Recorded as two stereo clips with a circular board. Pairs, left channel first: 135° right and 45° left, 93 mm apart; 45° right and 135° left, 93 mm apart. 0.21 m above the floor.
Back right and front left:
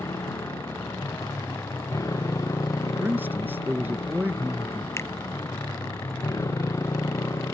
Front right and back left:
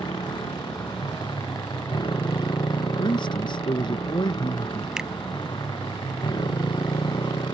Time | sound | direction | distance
0.0 | a motorcycle | 80° right | ?
3.0 | a man speaking | 25° right | ?
5.0 | a finger snap | 150° right | ?